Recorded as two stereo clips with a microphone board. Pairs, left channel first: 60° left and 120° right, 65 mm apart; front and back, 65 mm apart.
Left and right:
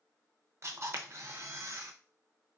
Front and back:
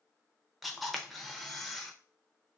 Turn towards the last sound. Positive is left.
turn(degrees=-90)